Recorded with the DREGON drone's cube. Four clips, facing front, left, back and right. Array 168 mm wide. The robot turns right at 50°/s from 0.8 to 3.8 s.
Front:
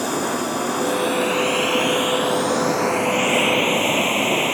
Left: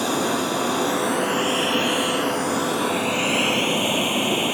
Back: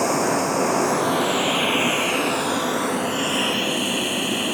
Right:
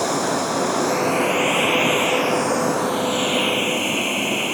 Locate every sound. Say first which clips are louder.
0.0 s running water: right 1 dB, back 2 dB; 140° right; by 4.5 s 10° left